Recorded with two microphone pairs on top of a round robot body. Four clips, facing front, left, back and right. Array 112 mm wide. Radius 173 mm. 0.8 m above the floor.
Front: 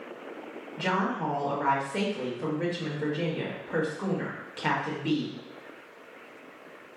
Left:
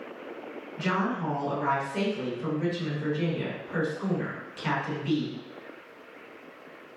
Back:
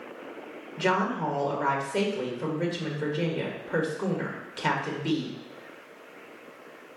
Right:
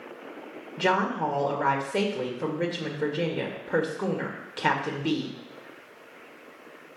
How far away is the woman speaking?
About 2 m.